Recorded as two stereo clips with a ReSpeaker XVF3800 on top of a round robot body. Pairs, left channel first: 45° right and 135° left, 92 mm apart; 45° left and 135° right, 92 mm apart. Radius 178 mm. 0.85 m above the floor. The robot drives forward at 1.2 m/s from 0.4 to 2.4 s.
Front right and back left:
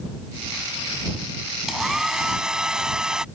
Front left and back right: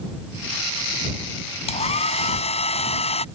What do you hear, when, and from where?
1.7 s a hair dryer: 50° left